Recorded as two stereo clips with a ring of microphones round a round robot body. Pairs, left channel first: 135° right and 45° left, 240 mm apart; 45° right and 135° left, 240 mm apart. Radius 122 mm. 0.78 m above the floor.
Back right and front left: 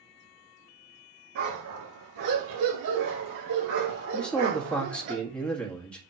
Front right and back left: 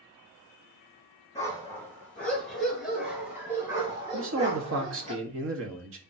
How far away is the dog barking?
About 5.5 m.